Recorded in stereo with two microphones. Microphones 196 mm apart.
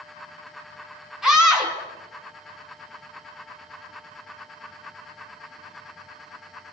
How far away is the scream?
About 5 m.